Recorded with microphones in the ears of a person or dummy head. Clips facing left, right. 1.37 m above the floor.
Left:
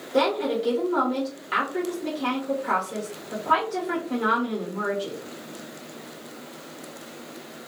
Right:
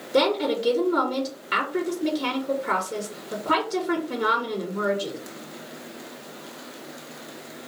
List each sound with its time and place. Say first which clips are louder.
0.1 s a woman speaking: right 1 dB; 20° right (ahead or behind), 0.5 m